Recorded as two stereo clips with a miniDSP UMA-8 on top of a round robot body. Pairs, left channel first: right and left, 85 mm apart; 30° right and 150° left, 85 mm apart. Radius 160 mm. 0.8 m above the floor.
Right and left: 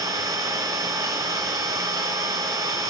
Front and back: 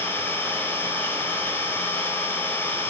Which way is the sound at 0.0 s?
40° left.